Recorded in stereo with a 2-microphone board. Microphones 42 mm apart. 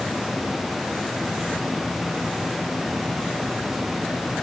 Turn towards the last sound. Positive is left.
No sound to turn to.